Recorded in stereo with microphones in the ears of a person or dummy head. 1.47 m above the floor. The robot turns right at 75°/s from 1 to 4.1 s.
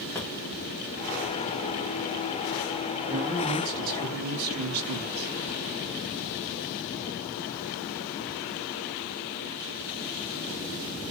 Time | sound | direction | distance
0.1 | a drawer | 15° left (ahead or behind) | 0.8 m
3.1 | a man speaking | 175° right | 1.8 m